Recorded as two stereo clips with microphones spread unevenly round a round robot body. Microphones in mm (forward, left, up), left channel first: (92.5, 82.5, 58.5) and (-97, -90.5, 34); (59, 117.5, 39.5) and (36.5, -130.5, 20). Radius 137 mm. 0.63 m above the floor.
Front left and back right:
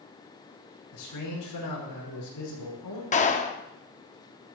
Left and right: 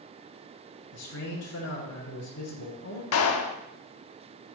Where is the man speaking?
45° left, 6 m.